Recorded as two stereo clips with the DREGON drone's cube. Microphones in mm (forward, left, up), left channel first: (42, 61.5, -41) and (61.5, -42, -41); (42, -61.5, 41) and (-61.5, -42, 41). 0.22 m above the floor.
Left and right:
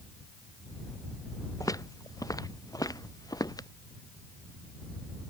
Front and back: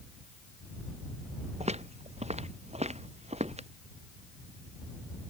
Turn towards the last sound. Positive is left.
turn(degrees=155)